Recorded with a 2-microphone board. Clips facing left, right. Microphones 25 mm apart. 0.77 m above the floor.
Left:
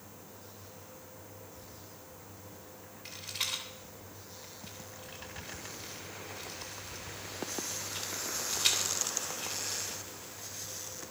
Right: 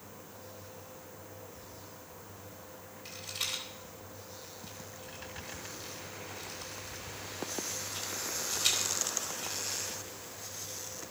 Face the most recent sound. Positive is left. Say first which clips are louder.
# left 1 dB
turn(degrees=40)  # may be behind; listen again after turning